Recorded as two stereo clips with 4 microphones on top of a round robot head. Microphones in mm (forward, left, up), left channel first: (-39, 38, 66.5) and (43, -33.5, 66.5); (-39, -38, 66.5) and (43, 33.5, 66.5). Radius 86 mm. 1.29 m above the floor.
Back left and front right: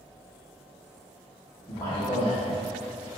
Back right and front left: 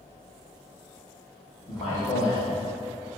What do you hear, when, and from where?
1.7 s a man speaking: 170° right, 1.2 m